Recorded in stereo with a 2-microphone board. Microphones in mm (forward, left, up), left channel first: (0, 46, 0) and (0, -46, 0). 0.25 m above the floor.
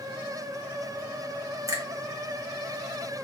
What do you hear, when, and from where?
1.7 s a finger snap: 35° right (ahead or behind), 1.0 m